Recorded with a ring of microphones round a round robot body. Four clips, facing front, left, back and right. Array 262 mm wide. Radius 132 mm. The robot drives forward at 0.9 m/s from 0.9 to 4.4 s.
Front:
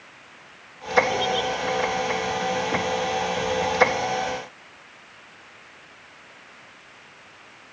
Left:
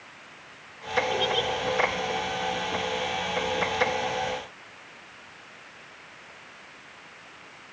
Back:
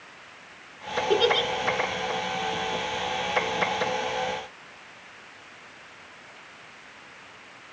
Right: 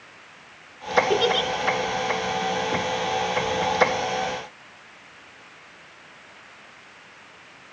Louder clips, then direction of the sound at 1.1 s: Right 5 dB, back 2 dB; 135° right.